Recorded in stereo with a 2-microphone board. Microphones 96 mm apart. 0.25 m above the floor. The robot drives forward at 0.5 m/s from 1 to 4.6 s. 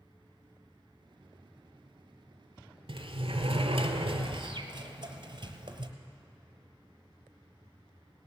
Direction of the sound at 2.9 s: 70° right (ahead or behind).